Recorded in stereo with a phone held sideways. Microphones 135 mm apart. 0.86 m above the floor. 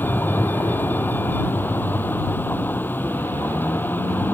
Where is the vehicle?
15° left (ahead or behind).